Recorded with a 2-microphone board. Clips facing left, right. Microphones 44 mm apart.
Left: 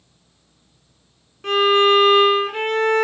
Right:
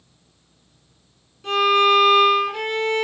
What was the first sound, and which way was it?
A violin, 50° left (ahead or behind).